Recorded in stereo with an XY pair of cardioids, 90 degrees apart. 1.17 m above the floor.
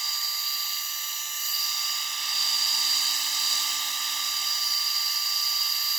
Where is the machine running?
30° right.